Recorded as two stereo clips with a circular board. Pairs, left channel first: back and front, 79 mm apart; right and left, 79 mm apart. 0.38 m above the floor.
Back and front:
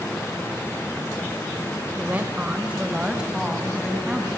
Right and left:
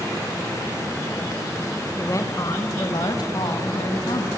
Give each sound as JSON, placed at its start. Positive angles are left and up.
{"t": 2.0, "sound": "a woman speaking", "azimuth_deg": -55, "distance_m": 1.3}